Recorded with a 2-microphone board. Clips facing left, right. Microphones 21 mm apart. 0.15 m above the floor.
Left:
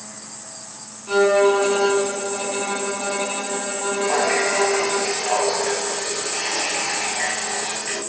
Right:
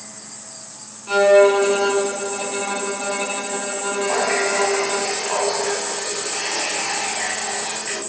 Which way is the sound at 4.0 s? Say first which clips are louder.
Even; 30° left (ahead or behind).